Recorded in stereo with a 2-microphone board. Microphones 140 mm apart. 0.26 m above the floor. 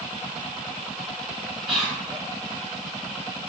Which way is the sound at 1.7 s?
5° right (ahead or behind).